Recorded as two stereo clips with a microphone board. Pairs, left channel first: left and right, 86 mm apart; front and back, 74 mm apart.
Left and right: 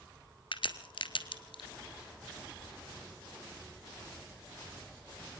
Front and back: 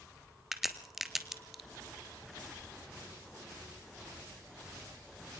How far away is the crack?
About 1.8 m.